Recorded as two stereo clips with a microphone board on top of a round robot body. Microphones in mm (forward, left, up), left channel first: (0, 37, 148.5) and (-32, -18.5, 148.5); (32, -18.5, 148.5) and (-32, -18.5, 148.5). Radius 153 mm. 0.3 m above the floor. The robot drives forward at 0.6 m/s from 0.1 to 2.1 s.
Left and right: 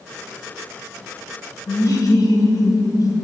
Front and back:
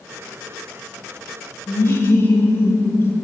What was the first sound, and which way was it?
Laughter, 45° left.